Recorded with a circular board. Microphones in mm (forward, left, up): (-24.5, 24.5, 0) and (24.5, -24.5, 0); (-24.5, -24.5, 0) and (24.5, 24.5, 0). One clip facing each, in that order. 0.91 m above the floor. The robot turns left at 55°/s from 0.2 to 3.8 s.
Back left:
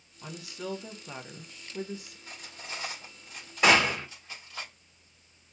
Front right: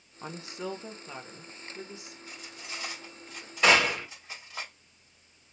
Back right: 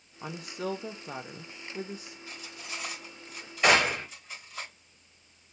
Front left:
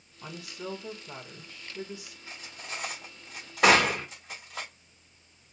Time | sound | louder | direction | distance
0.2 | a woman speaking | front right 2 dB, back right 4 dB | 85° right | 0.7 m
2.3 | cutlery clinking | back left 1 dB, front left 1 dB | 110° left | 1.9 m
3.6 | a gunshot | even, front left 2 dB | 55° left | 2.5 m